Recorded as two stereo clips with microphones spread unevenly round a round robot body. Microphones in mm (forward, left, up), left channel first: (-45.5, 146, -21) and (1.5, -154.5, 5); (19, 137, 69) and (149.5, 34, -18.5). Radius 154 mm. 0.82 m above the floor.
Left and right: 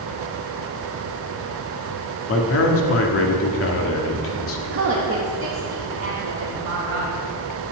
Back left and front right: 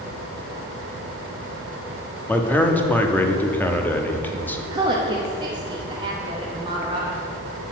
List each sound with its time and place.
2.3 s a man speaking: 55° left, 1.3 m
4.7 s a woman speaking: 40° right, 1.0 m